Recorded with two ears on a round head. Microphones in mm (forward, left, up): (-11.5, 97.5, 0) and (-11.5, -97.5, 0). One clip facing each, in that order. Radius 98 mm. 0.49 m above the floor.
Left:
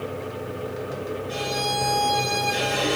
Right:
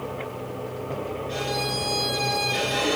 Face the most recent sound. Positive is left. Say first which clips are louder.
# left 1 dB
turn(degrees=5)  # may be behind; listen again after turning